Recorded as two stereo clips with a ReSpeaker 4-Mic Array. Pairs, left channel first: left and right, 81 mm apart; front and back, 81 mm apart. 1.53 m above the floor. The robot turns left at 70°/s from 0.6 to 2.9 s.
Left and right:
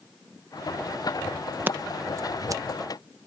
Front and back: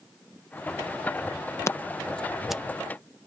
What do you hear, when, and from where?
1.7 s scissors: 35° right; by 2.6 s 100° right